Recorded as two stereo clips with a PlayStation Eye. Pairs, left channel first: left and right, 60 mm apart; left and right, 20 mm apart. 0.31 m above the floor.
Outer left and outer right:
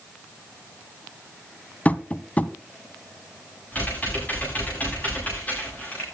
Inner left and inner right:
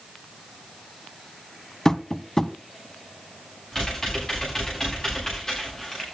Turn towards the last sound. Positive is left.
turn(degrees=25)  # may be behind; listen again after turning